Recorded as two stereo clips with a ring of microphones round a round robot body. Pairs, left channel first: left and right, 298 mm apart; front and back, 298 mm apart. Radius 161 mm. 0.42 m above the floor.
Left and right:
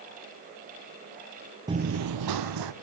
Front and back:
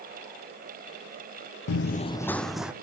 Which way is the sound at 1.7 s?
15° right.